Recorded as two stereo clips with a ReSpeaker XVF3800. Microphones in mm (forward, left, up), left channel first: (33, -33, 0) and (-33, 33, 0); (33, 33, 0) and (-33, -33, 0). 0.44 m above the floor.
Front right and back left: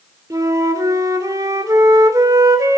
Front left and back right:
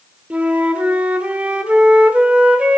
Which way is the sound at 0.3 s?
155° left.